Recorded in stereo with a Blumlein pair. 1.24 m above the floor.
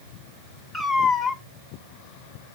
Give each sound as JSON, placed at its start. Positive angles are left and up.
{"t": 0.7, "sound": "a cat meowing", "azimuth_deg": 5, "distance_m": 1.7}